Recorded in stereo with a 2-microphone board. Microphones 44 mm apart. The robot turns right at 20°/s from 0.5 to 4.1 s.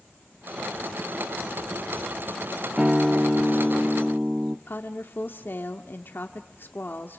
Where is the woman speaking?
50° left (ahead or behind), 1.4 m.